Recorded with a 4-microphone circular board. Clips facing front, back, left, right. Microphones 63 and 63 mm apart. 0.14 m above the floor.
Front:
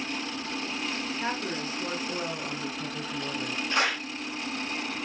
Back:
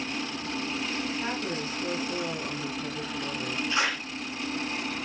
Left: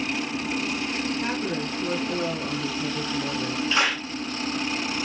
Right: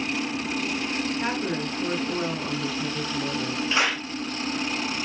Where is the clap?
20° right, 2 m.